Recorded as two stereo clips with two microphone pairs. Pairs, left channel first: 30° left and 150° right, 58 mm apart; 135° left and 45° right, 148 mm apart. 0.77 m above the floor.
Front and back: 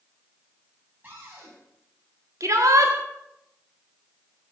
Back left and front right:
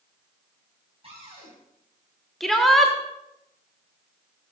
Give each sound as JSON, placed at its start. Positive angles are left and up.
{"t": 1.0, "sound": "a cupboard door", "azimuth_deg": -95, "distance_m": 6.5}
{"t": 2.4, "sound": "a shout", "azimuth_deg": -135, "distance_m": 1.3}